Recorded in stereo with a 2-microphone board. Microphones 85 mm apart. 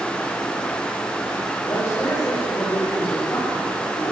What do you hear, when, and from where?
1.7 s a man speaking: 35° left (ahead or behind), 4.5 m; by 4.1 s 20° left (ahead or behind), 3 m